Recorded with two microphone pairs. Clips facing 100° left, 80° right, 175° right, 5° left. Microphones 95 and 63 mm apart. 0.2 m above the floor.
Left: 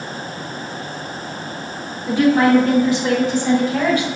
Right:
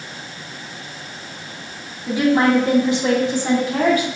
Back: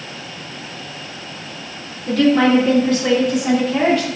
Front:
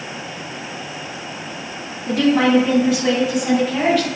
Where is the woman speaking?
15° right, 1.5 m; by 4.1 s 100° right, 1.8 m.